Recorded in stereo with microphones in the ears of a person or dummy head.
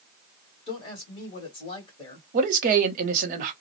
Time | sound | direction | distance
0.7 | a woman speaking | 35° left (ahead or behind) | 1.2 m
2.3 | a man speaking | 55° right (ahead or behind) | 0.8 m